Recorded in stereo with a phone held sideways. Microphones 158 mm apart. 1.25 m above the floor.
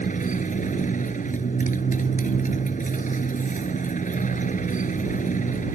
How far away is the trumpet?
No trumpet in this recording.